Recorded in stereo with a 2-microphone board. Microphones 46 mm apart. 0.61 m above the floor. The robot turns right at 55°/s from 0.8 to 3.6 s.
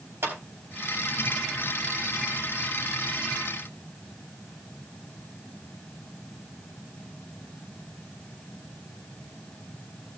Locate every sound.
0.2 s a clap: 55° right (ahead or behind), 4 m